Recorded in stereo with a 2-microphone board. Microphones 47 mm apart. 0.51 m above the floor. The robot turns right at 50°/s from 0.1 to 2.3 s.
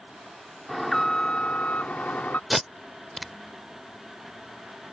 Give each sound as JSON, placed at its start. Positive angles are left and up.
{"t": 0.7, "sound": "an alarm", "azimuth_deg": 0}
{"t": 2.5, "sound": "tape being pulled", "side_deg": 0}